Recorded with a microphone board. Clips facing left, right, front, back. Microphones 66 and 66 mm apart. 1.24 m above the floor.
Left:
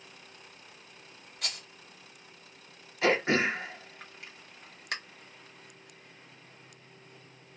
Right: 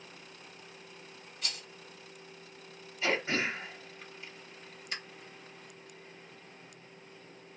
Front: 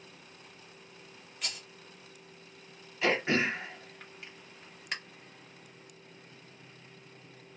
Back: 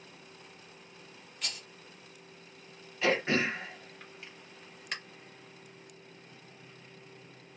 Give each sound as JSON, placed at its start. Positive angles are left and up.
{"t": 1.4, "sound": "a rattle", "azimuth_deg": 85, "distance_m": 0.7}
{"t": 3.0, "sound": "throat clearing", "azimuth_deg": 85, "distance_m": 0.8}